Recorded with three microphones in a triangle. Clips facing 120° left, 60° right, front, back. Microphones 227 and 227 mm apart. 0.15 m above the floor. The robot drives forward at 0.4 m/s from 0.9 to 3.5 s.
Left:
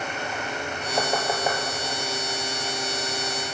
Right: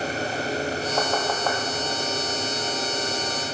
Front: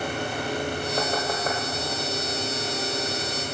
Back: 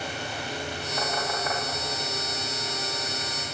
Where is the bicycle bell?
No bicycle bell in this recording.